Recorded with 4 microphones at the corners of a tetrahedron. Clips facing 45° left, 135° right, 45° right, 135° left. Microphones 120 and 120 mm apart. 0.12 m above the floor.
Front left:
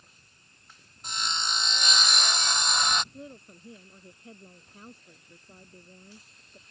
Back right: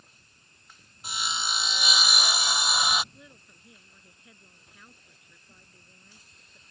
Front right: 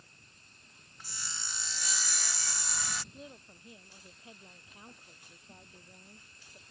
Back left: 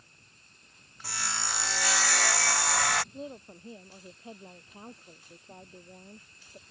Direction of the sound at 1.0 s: 140° left.